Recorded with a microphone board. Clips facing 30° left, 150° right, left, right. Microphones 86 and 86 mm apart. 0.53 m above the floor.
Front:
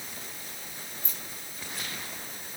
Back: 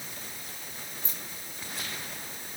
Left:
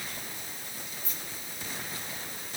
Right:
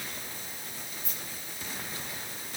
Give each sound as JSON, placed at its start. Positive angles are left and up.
{"t": 1.0, "sound": "keys jangling", "azimuth_deg": -85, "distance_m": 4.5}